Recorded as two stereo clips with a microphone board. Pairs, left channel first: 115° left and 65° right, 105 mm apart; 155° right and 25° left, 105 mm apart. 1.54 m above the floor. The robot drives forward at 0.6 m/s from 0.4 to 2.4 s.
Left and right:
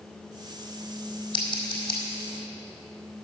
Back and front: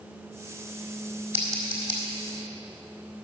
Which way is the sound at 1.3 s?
85° left.